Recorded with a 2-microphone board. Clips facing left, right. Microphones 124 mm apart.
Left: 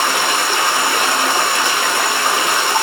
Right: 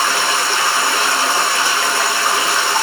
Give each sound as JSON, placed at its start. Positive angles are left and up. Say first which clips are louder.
{"t": 0.0, "sound": "running water", "louder": "even", "side_deg": 15, "distance_m": 1.0}